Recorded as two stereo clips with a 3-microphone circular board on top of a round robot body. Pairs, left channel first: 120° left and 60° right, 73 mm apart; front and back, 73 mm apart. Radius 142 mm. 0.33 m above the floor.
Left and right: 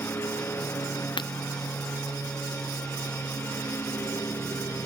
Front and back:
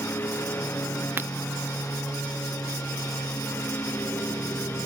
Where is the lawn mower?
60° left.